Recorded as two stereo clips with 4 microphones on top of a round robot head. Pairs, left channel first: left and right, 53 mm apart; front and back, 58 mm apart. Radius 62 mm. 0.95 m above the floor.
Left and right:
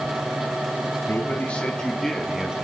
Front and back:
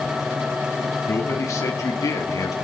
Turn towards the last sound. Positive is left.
turn(degrees=-15)